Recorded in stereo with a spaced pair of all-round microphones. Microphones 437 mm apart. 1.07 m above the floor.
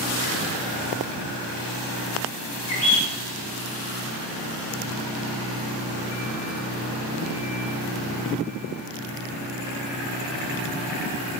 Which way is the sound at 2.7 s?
70° right (ahead or behind).